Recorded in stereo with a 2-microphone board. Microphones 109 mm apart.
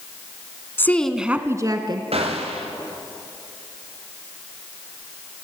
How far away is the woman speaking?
About 1.3 m.